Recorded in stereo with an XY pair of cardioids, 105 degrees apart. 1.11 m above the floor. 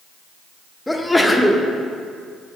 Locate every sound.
0.9 s a sneeze: 10° left, 0.8 m